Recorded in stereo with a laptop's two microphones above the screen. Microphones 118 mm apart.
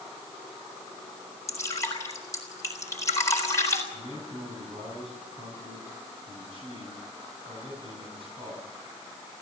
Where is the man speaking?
45° right (ahead or behind), 7.5 m.